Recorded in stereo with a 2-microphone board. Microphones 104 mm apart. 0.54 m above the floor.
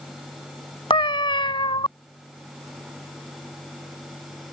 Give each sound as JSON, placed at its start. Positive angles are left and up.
{"t": 0.9, "sound": "a cat meowing", "side_deg": 55}